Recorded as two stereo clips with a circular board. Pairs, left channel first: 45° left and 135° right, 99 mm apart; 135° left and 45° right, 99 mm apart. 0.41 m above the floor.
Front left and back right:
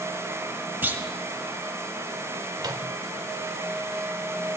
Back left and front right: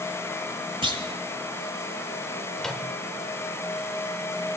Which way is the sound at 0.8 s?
65° right.